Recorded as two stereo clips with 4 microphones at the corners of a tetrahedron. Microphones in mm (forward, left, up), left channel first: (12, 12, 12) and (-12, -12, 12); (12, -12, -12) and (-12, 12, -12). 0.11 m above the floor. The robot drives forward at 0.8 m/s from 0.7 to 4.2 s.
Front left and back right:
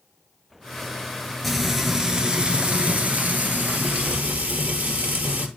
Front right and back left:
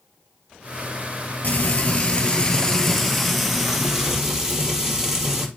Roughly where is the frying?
Ahead right.